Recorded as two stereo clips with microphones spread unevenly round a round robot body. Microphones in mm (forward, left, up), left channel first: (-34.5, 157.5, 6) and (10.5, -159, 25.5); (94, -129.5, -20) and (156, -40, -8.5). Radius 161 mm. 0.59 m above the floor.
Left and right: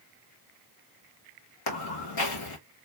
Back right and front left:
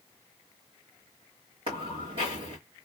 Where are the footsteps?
120° left, 2 m.